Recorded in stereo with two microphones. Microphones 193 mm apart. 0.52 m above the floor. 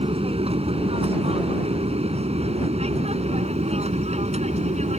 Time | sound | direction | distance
0.0 | an aircraft | 30° right (ahead or behind) | ?